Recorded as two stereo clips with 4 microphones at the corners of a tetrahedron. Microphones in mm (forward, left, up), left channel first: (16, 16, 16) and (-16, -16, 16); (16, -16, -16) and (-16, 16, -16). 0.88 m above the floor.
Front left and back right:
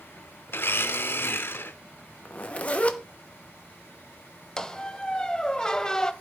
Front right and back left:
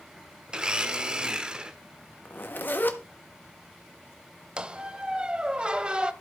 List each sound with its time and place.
0.5 s a blender: 65° left, 0.8 m
2.2 s a zipper: 10° right, 1.1 m
4.6 s a squeak: 95° left, 0.7 m